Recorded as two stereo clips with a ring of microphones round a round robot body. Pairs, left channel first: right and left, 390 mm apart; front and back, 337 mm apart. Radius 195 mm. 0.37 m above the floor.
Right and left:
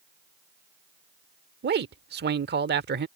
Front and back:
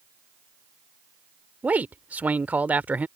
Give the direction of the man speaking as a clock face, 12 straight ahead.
9 o'clock.